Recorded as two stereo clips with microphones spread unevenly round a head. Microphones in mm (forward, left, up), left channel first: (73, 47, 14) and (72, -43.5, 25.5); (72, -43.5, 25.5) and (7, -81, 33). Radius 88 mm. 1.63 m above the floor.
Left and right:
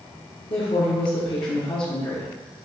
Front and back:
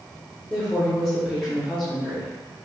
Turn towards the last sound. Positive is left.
turn(degrees=120)